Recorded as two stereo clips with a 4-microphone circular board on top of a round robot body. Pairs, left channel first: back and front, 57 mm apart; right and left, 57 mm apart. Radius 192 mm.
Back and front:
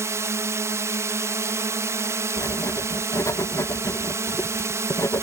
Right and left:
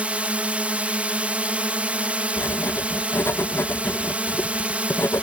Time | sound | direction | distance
0.0 | a drone | 25° left | ?
2.4 | writing | 140° right | ?